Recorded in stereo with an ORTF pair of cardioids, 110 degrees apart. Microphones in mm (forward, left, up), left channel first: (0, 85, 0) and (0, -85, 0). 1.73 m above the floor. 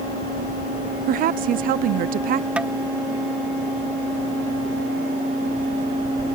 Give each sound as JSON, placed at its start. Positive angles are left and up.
{"t": 1.1, "sound": "a woman speaking", "azimuth_deg": -60}
{"t": 2.6, "sound": "tapping", "azimuth_deg": -5}